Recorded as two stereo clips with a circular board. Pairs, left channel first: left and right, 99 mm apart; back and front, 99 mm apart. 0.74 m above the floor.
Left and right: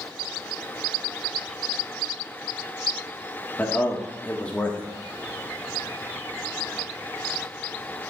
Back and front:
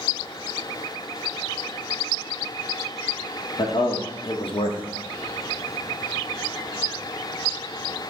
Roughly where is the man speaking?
Behind.